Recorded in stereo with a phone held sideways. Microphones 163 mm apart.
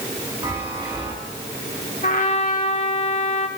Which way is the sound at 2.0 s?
50° left (ahead or behind).